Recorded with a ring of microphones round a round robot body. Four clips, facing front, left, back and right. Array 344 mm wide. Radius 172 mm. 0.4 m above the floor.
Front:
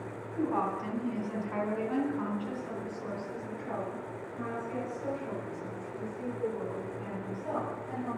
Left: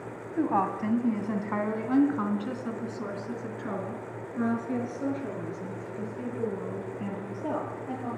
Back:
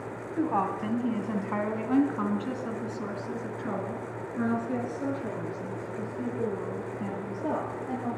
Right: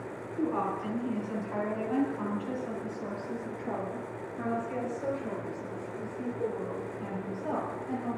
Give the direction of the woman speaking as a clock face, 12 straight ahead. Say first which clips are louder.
Left 4 dB, back 3 dB; 8 o'clock.